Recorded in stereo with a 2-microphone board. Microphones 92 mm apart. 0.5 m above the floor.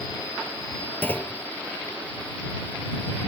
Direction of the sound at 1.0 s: 20° left (ahead or behind).